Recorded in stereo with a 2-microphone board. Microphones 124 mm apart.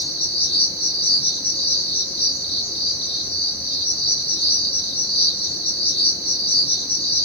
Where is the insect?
55° left (ahead or behind), 1.1 m.